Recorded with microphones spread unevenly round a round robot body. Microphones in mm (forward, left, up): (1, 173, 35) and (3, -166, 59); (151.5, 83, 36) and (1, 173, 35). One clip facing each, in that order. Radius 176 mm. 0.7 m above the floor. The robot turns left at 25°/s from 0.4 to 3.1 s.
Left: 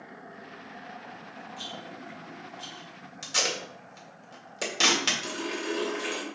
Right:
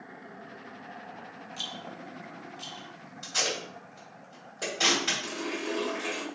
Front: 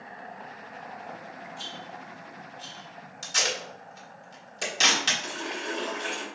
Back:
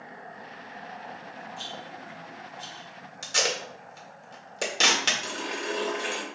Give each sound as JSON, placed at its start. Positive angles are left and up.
{"t": 1.6, "sound": "a rattle", "azimuth_deg": -145, "distance_m": 0.8}
{"t": 3.2, "sound": "tape being pulled", "azimuth_deg": 120, "distance_m": 1.7}
{"t": 5.2, "sound": "a running tap", "azimuth_deg": 145, "distance_m": 2.0}